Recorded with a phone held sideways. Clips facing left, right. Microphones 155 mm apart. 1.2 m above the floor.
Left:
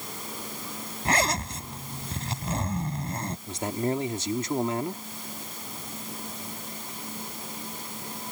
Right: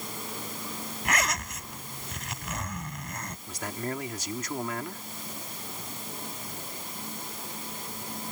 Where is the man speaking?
30° left (ahead or behind).